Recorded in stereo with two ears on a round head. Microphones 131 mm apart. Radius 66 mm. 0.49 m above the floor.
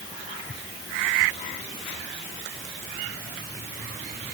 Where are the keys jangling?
I don't hear keys jangling.